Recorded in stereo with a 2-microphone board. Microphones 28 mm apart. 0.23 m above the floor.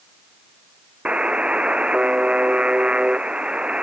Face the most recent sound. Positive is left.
turn(degrees=-45)  # may be behind; listen again after turning